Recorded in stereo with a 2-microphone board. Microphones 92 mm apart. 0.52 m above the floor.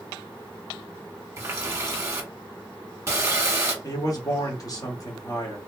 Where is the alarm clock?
No alarm clock in this recording.